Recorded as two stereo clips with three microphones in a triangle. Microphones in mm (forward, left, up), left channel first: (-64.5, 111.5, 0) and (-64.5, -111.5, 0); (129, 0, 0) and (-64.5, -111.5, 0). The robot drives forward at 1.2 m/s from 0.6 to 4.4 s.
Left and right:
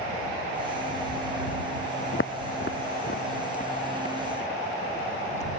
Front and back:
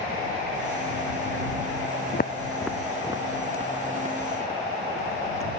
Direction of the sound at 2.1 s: 60° left.